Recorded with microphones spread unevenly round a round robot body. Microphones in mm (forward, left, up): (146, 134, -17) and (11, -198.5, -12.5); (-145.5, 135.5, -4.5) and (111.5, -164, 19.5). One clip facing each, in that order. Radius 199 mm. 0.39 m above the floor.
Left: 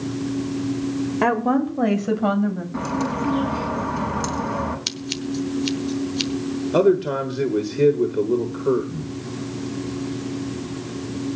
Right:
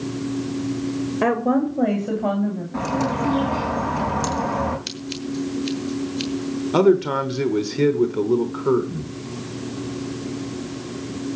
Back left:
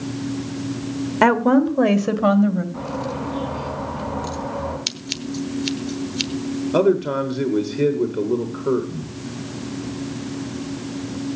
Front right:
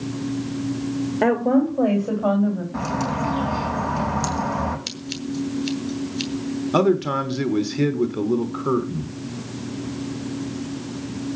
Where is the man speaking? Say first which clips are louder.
Right 1 dB, back left 2 dB; 75° right, 1.2 m.